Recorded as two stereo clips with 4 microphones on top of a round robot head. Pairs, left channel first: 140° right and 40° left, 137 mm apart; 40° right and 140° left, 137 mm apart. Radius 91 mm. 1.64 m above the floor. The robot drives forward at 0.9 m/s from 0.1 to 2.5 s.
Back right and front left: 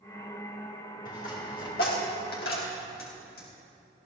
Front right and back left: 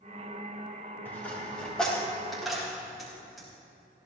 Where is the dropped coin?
115° right, 4 m; by 3.5 s 130° right, 4.5 m.